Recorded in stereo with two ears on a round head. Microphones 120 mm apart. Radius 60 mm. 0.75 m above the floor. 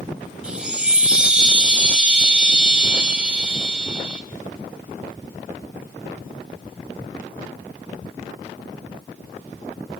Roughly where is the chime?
Centre.